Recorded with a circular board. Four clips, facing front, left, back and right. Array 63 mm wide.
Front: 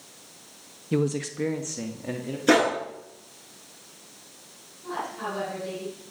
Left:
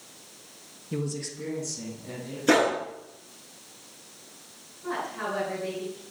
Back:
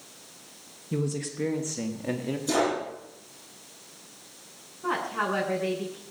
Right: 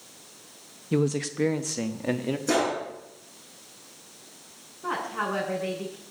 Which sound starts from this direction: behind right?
A woman speaking, at 4.8 s.